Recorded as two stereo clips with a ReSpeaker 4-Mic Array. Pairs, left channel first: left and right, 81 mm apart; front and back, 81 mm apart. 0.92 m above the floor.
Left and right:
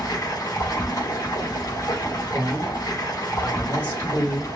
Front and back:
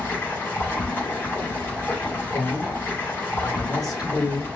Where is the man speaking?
25° left, 1.9 m.